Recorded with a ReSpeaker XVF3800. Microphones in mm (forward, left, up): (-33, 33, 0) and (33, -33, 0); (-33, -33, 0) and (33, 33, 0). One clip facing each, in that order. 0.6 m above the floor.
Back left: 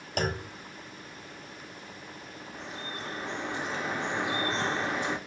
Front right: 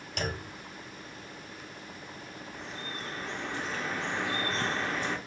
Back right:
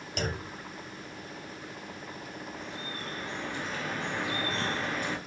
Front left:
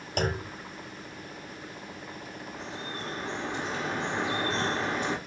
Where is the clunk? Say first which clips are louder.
Back left 4 dB, front left 5 dB; 90° left, 1.0 m.